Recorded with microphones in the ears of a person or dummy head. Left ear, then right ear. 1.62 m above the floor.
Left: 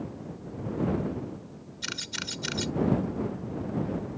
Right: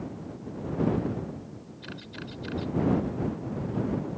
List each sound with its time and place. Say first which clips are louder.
1.8 s a camera shutter: left 9 dB; 75° left (ahead or behind)